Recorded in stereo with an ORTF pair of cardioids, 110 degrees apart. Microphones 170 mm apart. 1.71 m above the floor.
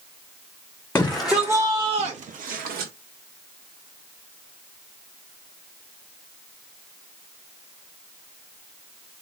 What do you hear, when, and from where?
0.9 s a shout: 10° left, 0.8 m; by 2.9 s 65° right, 1.3 m